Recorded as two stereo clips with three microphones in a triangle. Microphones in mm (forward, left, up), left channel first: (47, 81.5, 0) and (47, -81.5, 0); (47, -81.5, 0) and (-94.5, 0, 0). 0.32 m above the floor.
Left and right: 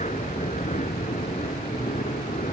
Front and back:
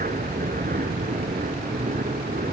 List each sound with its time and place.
0.0 s an aircraft: 130° left; by 2.5 s 125° left